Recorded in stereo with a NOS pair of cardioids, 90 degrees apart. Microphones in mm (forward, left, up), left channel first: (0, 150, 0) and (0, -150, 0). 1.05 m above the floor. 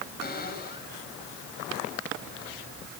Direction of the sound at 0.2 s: 30° left.